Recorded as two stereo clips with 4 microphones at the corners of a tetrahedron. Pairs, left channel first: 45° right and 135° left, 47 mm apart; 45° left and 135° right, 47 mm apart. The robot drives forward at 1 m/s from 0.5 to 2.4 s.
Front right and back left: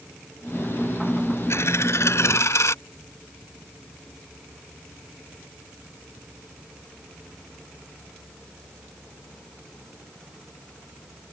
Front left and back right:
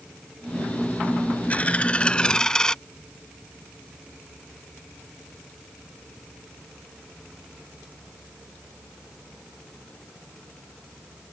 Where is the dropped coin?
15° right; by 2.8 s 30° right.